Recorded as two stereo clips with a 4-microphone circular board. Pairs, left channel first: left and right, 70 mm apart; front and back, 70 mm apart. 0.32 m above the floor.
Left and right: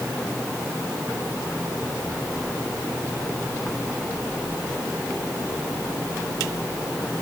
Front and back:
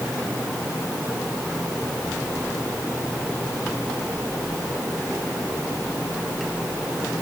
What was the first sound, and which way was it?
Only background noise.